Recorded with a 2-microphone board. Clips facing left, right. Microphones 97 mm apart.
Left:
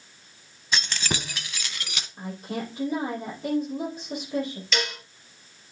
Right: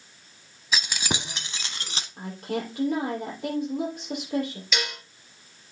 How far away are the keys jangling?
About 0.7 m.